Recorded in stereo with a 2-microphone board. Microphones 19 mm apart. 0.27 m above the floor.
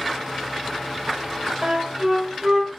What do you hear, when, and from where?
1.6 s a flute: 35° right (ahead or behind), 1.3 m